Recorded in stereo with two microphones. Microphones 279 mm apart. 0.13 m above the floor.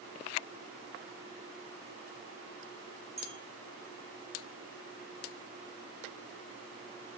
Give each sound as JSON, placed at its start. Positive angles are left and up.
{"t": 3.2, "sound": "a bell", "side_deg": -50, "distance_m": 1.7}